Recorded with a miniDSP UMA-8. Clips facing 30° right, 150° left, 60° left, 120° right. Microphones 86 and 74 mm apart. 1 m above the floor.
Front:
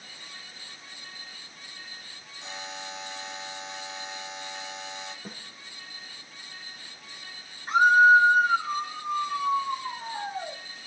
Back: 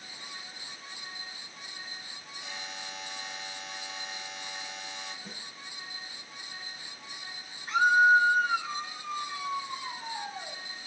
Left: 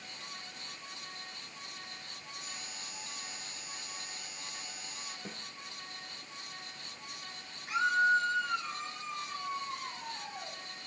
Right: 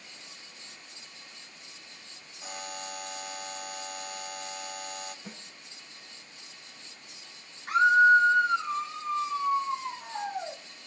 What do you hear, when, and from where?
2.4 s a buzzer: 95° right, 1.0 m
5.2 s a snare drum: 10° left, 2.5 m
7.7 s a scream: 80° right, 2.5 m